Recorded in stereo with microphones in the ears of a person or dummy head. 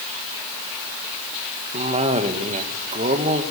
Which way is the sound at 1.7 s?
35° right (ahead or behind).